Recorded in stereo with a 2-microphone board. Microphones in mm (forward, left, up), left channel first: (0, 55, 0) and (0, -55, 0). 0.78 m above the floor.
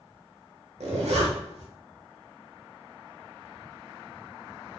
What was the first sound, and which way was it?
A zipper, 80° right.